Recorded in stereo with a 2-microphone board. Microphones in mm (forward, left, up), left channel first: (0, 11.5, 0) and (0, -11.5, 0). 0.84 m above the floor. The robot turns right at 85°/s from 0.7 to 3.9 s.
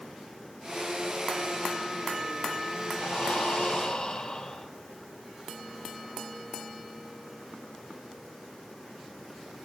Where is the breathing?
65° left, 1.4 m; by 4.7 s 145° left, 1.4 m.